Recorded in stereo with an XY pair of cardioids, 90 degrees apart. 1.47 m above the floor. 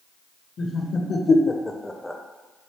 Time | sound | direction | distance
0.6 | laughter | 55° left | 1.1 m